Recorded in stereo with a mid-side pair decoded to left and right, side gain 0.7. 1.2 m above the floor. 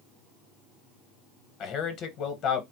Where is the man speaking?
50° left, 1.0 m.